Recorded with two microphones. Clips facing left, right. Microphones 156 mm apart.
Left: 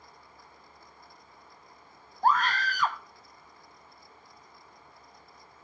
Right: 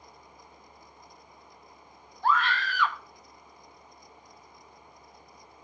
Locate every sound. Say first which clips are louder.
2.2 s a scream: left 1 dB; 40° left (ahead or behind), 0.7 m